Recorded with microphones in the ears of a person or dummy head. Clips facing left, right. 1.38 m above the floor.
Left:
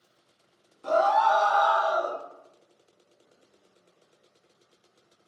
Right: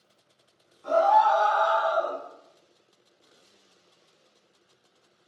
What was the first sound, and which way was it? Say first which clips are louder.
A scream: right 2 dB; 50° left (ahead or behind).